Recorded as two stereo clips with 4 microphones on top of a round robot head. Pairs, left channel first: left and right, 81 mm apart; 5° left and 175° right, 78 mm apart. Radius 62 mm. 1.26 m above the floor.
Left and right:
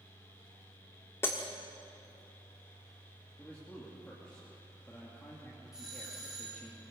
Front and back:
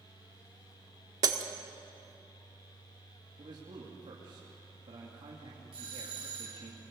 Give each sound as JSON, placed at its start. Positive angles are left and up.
{"t": 1.2, "sound": "breaking glass", "azimuth_deg": 160, "distance_m": 1.2}
{"t": 3.4, "sound": "a man speaking", "azimuth_deg": 165, "distance_m": 2.5}
{"t": 5.7, "sound": "a doorbell", "azimuth_deg": -175, "distance_m": 4.0}